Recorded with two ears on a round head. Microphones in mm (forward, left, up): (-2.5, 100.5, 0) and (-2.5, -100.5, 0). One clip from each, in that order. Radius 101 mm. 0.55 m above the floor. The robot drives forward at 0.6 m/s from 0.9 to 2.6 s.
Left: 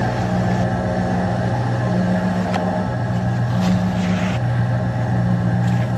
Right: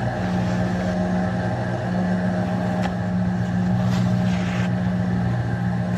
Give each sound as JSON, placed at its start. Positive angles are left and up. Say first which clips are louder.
{"t": 0.0, "sound": "an engine running", "louder": "left 4 dB", "side_deg": 15, "distance_m": 5.5}